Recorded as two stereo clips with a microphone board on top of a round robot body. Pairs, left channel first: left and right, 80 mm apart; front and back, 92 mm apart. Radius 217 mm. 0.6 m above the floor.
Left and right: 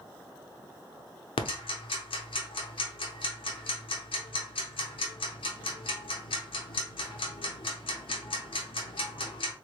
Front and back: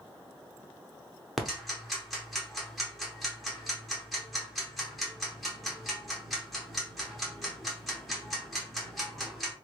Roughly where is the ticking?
Left.